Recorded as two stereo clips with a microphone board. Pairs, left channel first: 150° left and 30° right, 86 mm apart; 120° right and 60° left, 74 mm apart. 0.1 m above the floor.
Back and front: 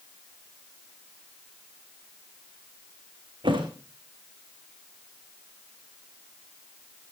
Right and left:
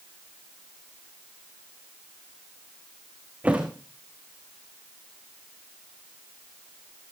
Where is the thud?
10° right, 3 m.